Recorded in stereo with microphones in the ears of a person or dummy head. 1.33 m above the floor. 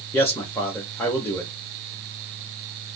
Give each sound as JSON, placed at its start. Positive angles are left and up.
{"t": 0.1, "sound": "a man speaking", "side_deg": 10, "distance_m": 0.8}